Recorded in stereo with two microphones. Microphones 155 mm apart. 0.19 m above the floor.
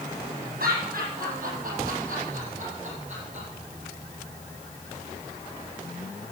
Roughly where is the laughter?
Right.